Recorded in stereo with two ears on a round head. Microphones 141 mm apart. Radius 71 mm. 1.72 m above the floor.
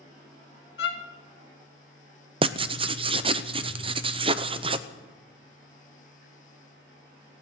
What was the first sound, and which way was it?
A violin, 75° left (ahead or behind).